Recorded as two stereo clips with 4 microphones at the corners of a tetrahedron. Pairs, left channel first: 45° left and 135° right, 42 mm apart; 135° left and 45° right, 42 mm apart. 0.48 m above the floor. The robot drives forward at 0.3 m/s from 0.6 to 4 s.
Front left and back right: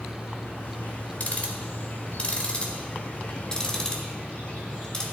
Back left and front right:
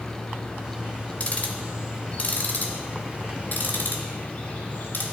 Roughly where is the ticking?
Left.